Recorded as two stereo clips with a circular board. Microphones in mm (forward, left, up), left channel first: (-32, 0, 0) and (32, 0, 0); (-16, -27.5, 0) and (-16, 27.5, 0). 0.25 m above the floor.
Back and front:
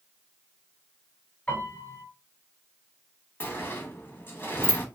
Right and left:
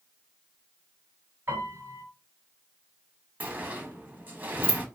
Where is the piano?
120° left, 1.7 m.